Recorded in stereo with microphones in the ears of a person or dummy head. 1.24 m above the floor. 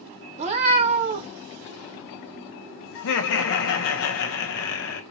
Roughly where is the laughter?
Left.